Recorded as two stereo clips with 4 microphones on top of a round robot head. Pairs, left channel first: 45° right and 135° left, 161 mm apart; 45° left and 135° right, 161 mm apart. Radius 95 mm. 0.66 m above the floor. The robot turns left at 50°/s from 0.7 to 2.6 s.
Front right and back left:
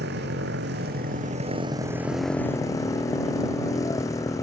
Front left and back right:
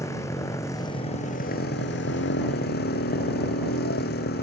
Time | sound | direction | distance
0.0 | a motorcycle | 120° left | ?